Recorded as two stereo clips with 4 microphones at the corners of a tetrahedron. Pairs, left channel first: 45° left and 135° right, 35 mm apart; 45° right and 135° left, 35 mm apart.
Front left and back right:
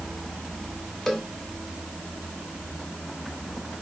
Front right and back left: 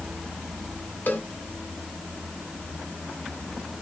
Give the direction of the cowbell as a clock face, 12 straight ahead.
1 o'clock.